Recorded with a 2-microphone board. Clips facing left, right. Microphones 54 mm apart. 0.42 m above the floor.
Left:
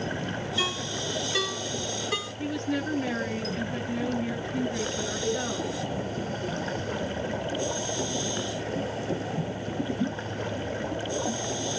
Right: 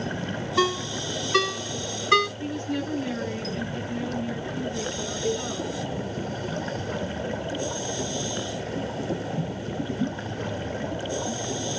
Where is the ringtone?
80° right, 2.0 m.